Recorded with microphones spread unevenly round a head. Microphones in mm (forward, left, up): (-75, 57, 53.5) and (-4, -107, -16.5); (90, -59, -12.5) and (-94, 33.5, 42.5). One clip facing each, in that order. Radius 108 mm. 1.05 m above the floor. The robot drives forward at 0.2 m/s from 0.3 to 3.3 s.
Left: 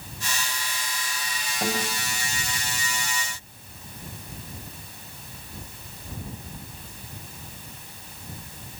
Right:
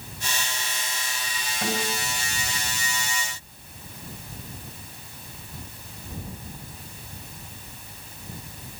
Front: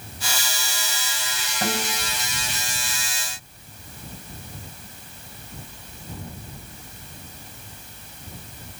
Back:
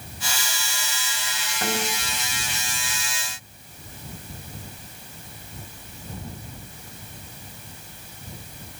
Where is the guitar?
50° left, 5 m.